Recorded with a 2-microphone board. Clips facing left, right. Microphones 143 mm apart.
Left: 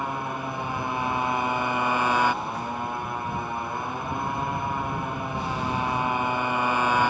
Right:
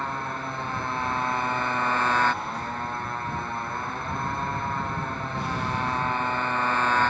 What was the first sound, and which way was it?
A motorcycle, 10° left (ahead or behind).